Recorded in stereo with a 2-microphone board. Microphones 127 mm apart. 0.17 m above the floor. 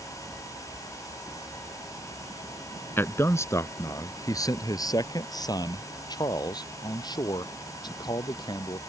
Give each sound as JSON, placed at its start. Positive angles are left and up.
{"t": 3.0, "sound": "a man speaking", "side_deg": 20}